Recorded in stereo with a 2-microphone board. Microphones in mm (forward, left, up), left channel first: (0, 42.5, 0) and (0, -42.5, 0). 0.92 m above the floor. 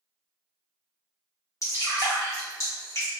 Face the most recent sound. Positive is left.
turn(degrees=40)  # may be behind; listen again after turning